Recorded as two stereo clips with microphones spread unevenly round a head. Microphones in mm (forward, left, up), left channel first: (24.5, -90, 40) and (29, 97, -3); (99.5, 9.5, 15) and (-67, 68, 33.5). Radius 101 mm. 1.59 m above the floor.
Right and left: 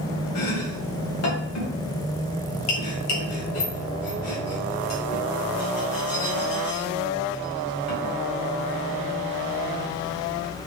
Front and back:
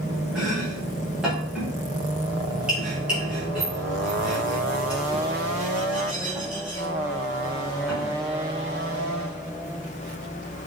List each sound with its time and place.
0.3 s chopping: 115° right, 2.5 m